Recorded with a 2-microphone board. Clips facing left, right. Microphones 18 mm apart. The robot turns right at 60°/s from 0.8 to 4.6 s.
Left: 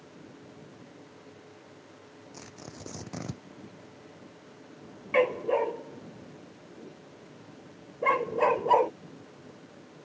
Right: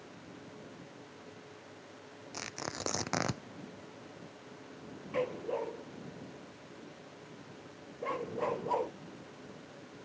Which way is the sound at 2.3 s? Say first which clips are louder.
Right 7 dB; 135° right.